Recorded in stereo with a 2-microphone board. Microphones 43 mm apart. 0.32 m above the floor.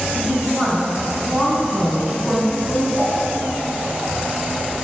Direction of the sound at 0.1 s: 25° right (ahead or behind).